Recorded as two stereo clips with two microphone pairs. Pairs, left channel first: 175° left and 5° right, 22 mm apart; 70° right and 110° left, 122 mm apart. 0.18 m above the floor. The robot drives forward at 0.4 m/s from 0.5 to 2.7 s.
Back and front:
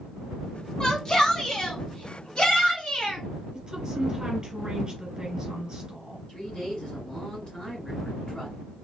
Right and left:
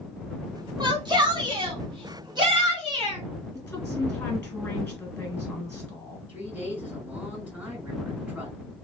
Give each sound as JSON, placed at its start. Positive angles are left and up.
{"t": 0.8, "sound": "a shout", "azimuth_deg": 130, "distance_m": 1.2}
{"t": 3.5, "sound": "a woman speaking", "azimuth_deg": -25, "distance_m": 1.5}
{"t": 6.3, "sound": "a woman speaking", "azimuth_deg": -175, "distance_m": 2.5}